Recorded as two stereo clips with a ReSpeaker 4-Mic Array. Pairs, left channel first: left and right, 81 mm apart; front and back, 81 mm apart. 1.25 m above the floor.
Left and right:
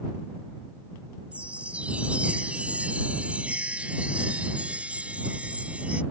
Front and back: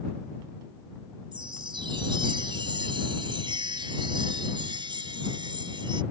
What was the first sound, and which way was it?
A chime, 165° right.